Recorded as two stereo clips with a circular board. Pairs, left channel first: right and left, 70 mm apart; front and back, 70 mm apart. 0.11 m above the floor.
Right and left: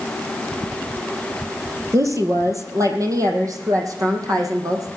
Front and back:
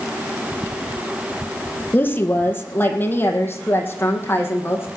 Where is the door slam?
No door slam in this recording.